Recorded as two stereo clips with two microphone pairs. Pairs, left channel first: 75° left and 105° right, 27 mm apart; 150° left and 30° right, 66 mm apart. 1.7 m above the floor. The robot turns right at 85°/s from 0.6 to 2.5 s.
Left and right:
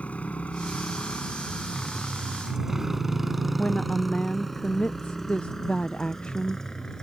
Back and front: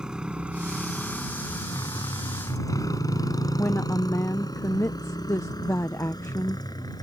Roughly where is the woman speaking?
Left.